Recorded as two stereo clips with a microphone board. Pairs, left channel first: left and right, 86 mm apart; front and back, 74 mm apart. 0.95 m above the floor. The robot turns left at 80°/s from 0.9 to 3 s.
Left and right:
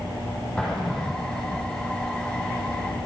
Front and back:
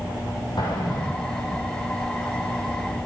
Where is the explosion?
10° left, 7.5 m; by 1.7 s 50° right, 7.5 m.